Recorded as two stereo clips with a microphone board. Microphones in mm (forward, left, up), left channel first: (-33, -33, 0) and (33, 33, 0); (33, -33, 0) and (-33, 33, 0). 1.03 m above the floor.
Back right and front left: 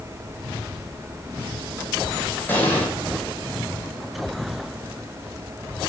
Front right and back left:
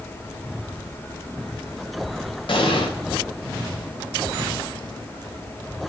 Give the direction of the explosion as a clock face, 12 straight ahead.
2 o'clock.